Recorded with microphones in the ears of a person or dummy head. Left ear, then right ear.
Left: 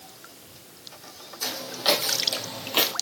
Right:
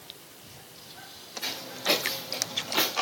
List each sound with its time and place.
1.4 s footsteps: 60° left (ahead or behind), 3 m; by 2.9 s 30° left (ahead or behind), 1.5 m